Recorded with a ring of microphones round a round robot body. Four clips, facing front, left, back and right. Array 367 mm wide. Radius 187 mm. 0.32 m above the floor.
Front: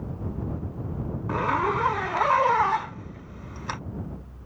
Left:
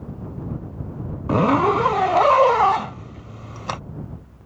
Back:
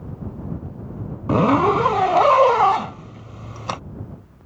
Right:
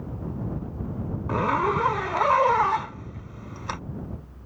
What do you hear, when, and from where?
1.3 s a zipper: 150° left